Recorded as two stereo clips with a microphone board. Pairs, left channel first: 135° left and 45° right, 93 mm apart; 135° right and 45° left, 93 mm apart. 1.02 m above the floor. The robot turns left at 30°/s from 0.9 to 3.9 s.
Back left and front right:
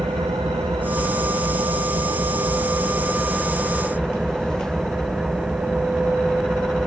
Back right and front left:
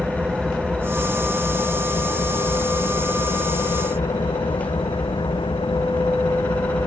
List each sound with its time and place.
0.0 s an engine running: 35° right; by 6.9 s 125° right